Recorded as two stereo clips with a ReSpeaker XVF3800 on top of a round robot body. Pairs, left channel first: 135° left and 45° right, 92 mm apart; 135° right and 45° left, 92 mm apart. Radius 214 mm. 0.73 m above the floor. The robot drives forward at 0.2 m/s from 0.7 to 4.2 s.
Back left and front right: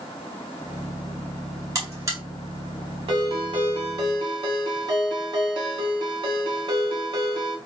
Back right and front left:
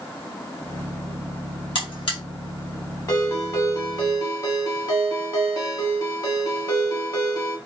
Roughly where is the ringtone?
Right.